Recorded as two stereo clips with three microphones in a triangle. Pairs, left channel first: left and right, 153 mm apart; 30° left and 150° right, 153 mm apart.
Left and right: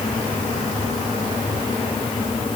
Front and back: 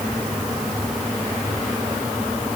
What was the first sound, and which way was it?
Only background noise.